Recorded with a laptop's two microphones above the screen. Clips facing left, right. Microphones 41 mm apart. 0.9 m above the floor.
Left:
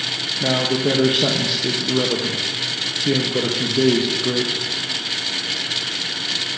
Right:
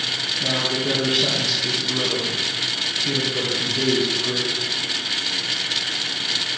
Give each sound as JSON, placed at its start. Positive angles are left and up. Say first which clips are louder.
{"t": 0.4, "sound": "a man speaking", "louder": "left 5 dB", "side_deg": 30, "distance_m": 0.6}